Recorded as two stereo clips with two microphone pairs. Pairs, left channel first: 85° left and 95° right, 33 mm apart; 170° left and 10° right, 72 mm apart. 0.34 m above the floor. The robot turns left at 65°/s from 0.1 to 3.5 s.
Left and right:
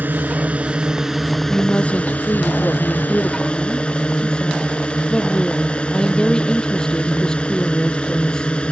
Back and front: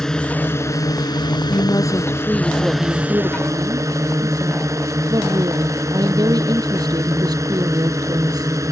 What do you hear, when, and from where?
0.0 s a drone: 110° right; by 8.7 s 30° left
1.5 s a woman speaking: 145° left; by 8.5 s 15° left